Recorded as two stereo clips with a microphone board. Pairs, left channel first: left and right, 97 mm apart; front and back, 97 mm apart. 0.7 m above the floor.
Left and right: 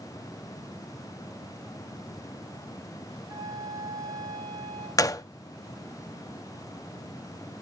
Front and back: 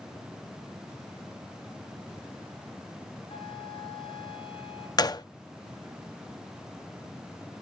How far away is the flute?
About 1.8 m.